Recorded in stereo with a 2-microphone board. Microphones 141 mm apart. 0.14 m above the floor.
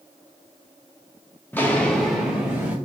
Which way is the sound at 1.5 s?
15° left (ahead or behind).